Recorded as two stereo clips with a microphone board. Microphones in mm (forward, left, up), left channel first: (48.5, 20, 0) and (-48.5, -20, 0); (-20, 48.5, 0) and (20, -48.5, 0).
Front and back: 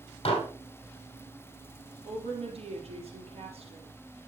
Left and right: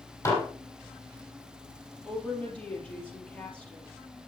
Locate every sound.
0.2 s dishes clattering: 50° left, 3.5 m
2.0 s a woman speaking: 170° right, 4 m